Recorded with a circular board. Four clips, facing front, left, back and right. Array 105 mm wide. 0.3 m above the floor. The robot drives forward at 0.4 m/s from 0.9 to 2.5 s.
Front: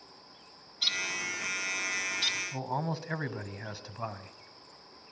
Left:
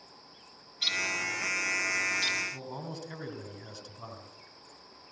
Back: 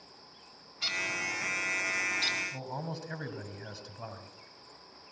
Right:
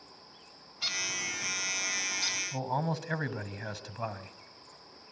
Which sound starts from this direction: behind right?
A bird, at 0.8 s.